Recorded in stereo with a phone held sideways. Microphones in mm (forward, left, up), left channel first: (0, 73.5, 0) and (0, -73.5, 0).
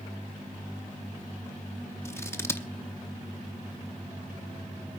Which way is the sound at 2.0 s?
20° left (ahead or behind).